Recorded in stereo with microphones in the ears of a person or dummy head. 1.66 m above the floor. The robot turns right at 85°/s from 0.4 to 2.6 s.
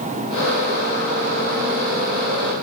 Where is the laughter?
I don't hear laughter.